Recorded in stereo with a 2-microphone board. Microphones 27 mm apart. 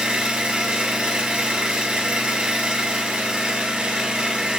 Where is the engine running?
45° right (ahead or behind), 1.4 m.